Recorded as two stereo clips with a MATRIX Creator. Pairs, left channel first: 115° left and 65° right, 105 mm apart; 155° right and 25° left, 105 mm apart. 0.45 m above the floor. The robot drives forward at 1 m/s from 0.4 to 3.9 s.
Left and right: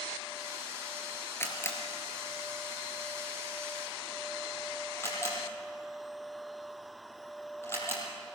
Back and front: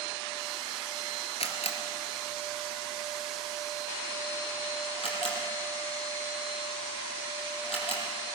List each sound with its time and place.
1.4 s a camera shutter: straight behind, 2.5 m